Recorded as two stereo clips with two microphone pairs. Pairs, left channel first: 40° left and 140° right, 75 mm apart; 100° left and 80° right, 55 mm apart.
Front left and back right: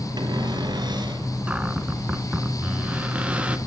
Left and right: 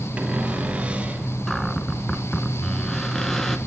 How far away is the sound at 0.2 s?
About 1.8 m.